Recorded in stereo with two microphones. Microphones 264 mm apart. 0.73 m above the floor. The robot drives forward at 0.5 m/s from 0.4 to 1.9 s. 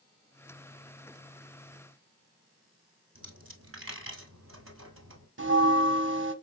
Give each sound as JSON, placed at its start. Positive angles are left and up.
{"t": 3.1, "sound": "a dropped coin", "side_deg": -55, "distance_m": 1.5}
{"t": 5.4, "sound": "a bell", "side_deg": -50, "distance_m": 0.7}